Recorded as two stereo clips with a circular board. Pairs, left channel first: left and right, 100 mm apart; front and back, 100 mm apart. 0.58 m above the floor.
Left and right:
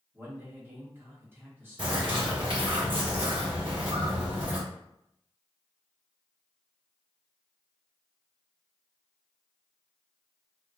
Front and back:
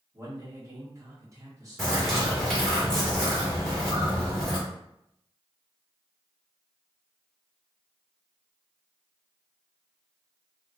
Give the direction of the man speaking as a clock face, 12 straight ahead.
5 o'clock.